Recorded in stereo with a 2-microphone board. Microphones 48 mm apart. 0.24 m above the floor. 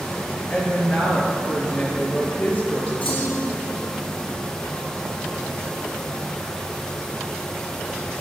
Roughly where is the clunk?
Left.